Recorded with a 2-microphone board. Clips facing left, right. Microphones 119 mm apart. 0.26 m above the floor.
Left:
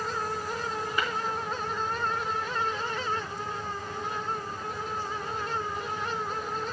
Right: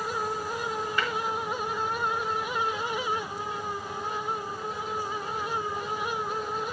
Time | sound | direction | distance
1.0 | tapping | 15° left (ahead or behind) | 3.5 m